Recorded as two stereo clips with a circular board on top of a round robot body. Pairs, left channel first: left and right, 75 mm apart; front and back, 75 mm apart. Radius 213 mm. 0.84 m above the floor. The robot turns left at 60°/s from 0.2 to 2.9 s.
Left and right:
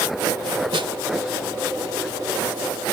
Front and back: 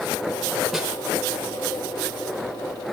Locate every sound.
0.7 s a snare drum: 90° right, 1.1 m; by 0.9 s 100° right, 1.1 m